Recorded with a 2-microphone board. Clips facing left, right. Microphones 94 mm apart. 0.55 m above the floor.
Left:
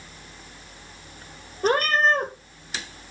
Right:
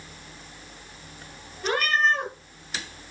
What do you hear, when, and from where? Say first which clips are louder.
1.6 s a cat meowing: left 3 dB; 40° left (ahead or behind), 1.8 m